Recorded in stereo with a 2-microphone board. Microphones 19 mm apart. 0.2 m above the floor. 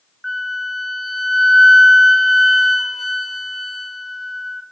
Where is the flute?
Centre (ahead or behind), 1.1 m.